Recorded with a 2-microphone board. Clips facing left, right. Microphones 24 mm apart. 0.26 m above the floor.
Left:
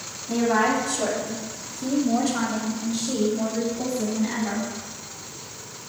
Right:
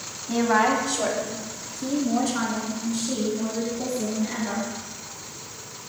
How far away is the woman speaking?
About 1.4 m.